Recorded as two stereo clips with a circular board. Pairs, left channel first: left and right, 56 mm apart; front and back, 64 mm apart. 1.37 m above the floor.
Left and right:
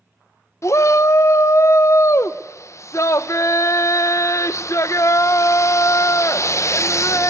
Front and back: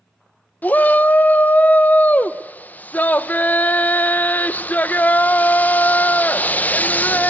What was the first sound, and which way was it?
A shout, 60° left.